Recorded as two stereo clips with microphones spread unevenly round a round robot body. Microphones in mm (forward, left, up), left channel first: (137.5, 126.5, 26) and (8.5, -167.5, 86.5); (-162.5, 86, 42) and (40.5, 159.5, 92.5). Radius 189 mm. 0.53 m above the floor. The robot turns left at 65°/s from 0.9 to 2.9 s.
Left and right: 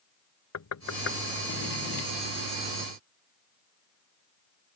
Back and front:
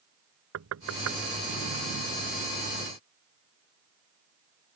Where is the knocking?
25° left; by 1.2 s 5° left.